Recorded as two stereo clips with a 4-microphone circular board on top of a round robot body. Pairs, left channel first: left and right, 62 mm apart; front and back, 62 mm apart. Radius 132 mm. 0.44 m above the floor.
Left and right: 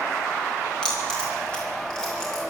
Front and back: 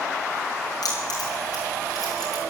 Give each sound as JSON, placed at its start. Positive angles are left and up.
{"t": 0.8, "sound": "keys jangling", "azimuth_deg": 10, "distance_m": 4.0}